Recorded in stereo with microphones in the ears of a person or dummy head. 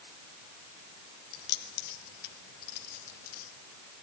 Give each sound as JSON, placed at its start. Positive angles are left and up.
{"t": 1.3, "sound": "keys jangling", "side_deg": 75, "distance_m": 3.0}